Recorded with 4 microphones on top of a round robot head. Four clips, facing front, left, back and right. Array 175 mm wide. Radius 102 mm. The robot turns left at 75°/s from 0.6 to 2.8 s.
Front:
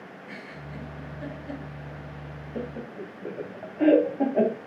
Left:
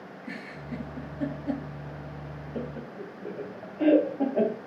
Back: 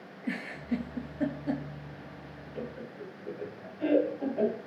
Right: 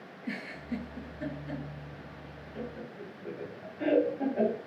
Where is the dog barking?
I don't hear a dog barking.